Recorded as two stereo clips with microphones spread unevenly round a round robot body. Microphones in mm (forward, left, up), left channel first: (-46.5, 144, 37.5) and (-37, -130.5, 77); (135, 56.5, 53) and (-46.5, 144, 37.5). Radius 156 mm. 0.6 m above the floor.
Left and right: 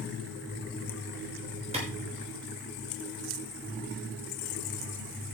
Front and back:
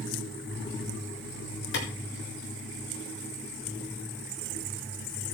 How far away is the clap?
About 7.5 m.